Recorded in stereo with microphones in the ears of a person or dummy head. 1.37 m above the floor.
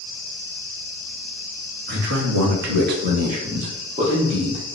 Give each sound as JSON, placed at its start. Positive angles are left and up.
{"t": 1.9, "sound": "a man speaking", "side_deg": -50, "distance_m": 0.6}